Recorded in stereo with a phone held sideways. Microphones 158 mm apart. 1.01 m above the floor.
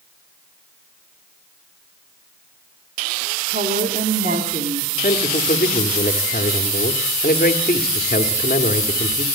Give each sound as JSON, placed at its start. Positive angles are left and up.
{"t": 3.5, "sound": "a woman speaking", "side_deg": -70, "distance_m": 3.0}
{"t": 5.0, "sound": "a man speaking", "side_deg": 70, "distance_m": 1.8}